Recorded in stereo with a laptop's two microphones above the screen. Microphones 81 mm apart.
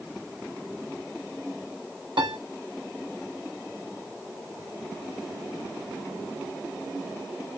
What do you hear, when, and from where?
2.2 s a piano: 80° right, 0.8 m